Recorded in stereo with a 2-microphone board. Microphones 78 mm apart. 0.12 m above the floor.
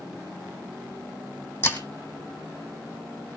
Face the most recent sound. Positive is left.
turn(degrees=30)  # may be behind; listen again after turning